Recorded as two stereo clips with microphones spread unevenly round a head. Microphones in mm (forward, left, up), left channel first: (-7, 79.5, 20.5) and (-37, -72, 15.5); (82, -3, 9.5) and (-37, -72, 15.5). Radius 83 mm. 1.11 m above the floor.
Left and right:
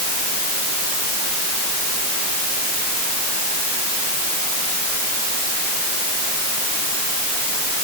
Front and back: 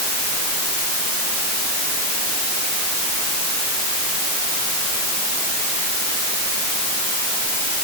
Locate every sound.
Only background noise.